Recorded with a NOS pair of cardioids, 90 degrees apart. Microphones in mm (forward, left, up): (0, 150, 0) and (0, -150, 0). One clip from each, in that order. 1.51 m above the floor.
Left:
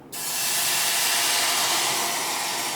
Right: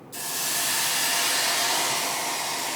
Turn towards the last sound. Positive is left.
turn(degrees=25)